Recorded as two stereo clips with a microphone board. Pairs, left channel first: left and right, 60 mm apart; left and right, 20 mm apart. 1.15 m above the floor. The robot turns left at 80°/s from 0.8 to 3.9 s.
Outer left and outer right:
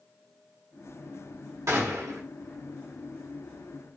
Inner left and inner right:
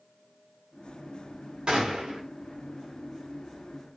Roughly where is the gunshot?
Ahead right.